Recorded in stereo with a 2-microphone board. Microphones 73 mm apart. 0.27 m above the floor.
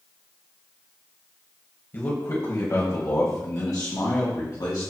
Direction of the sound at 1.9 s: 30° left (ahead or behind).